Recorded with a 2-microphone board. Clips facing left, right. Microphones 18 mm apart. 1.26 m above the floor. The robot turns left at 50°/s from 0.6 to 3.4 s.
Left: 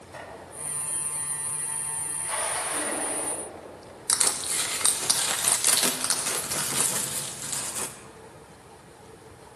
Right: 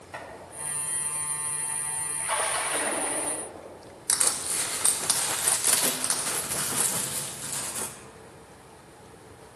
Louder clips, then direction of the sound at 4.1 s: Left 1 dB; 40° left (ahead or behind).